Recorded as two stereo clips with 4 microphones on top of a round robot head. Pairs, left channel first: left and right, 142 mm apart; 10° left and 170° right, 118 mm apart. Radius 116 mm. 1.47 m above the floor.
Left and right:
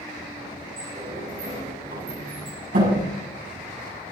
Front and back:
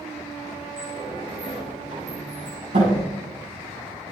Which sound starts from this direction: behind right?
A sliding door, at 0.8 s.